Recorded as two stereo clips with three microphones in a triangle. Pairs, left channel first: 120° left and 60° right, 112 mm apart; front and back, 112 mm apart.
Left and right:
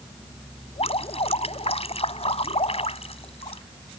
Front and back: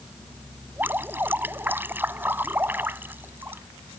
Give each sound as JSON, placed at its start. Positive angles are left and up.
{"t": 0.8, "sound": "dripping", "azimuth_deg": 110}